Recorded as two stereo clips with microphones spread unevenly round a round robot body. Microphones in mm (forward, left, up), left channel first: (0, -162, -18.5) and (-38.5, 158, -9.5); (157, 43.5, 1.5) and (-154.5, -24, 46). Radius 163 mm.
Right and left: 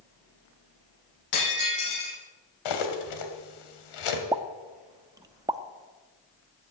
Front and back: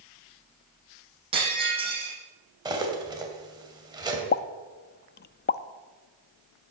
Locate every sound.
1.3 s breaking glass: 95° right, 8.5 m
2.6 s cutlery clinking: 90° right, 2.5 m
4.3 s a pop: 20° left, 0.5 m